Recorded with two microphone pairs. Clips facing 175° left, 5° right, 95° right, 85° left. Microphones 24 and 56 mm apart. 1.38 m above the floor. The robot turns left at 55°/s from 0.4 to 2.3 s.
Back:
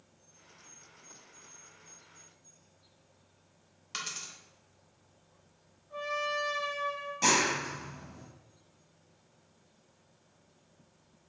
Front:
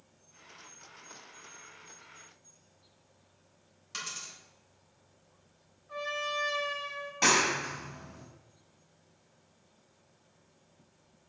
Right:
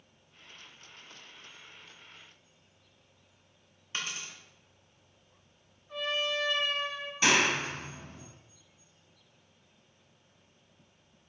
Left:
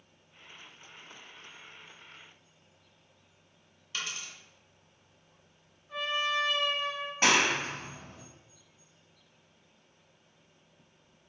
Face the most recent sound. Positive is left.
turn(degrees=45)